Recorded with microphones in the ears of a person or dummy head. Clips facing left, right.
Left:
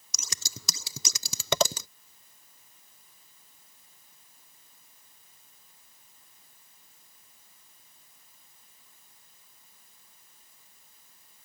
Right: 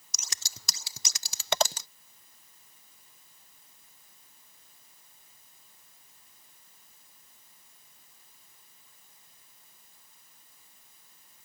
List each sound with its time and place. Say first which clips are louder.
0.1 s scissors: left 4 dB; 70° left (ahead or behind)